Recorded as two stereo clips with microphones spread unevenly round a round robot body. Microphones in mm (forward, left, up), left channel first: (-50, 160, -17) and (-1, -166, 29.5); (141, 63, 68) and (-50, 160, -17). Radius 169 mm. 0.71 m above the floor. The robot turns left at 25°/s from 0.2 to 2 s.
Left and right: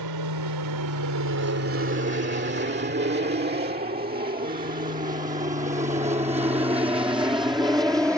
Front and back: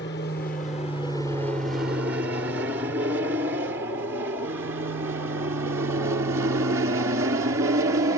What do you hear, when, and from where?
0.0 s an aircraft: 90° right; by 8.2 s 165° right